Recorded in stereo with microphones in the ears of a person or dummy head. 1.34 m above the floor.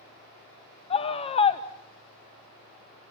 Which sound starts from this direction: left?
A scream, at 0.9 s.